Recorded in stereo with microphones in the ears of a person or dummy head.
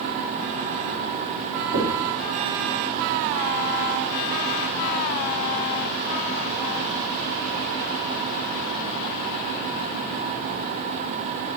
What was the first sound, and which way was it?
Knocking, 70° right (ahead or behind).